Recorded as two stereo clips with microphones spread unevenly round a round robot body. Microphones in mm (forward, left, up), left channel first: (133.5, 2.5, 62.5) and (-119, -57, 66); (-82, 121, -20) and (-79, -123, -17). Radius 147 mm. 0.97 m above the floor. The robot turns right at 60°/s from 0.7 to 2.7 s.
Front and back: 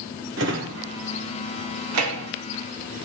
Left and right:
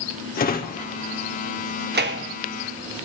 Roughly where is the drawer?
Behind left.